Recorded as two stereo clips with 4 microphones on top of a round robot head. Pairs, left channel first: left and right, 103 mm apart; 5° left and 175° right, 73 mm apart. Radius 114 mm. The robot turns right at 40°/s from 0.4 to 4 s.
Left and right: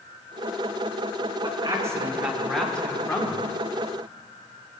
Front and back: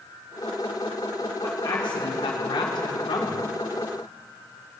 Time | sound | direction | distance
1.4 | a man speaking | 45° right | 2 m